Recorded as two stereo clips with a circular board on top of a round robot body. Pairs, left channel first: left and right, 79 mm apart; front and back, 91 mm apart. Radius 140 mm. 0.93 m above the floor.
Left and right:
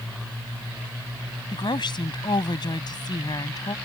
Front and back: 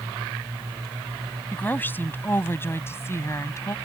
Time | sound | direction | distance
1.5 | a woman speaking | 70° left | ?